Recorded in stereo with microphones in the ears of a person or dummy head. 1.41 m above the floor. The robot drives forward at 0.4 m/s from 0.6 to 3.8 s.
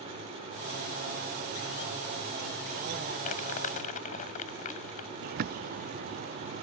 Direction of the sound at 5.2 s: 45° right (ahead or behind).